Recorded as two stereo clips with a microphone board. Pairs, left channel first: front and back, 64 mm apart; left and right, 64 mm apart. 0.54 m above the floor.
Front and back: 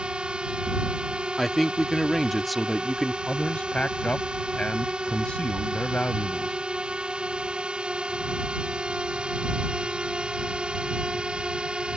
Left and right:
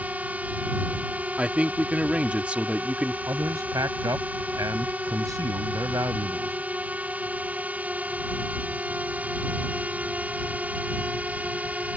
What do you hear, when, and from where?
0.0 s a drone: 125° right
1.4 s a man speaking: 90° right
3.3 s a man speaking: 70° right